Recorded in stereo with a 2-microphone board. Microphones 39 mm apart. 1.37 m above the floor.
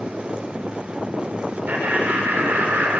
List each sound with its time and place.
1.7 s laughter: 55° right (ahead or behind), 4 m; by 3.0 s 70° right (ahead or behind), 3.5 m